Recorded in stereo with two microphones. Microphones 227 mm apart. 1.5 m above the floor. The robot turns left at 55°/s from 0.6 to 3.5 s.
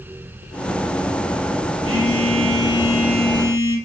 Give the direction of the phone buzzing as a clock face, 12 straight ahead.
3 o'clock.